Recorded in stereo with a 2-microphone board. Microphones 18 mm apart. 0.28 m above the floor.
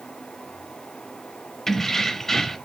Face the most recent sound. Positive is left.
turn(degrees=25)  # may be behind; listen again after turning